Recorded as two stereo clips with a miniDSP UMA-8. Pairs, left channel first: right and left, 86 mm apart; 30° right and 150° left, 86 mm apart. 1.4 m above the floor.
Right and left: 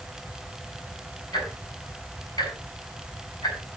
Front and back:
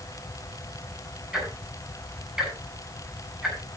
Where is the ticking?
125° right, 7.5 m.